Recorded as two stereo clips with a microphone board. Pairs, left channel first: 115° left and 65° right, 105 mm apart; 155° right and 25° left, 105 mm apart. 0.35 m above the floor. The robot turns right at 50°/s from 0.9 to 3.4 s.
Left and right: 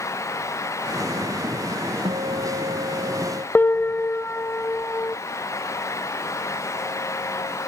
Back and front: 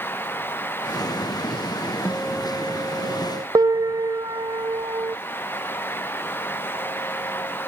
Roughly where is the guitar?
Right.